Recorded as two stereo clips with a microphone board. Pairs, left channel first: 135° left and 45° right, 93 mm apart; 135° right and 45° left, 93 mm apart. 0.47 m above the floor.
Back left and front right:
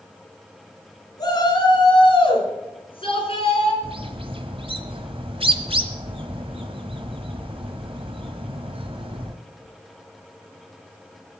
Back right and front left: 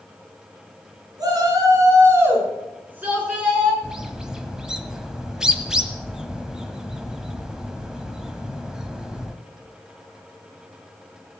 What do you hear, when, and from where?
1.2 s a shout: 90° left, 5 m; by 3.7 s 125° left, 6 m
3.8 s a bird: 40° right, 1.5 m